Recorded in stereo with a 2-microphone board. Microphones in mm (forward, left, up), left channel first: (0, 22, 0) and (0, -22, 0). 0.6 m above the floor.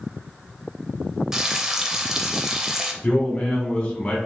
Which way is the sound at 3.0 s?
25° left (ahead or behind).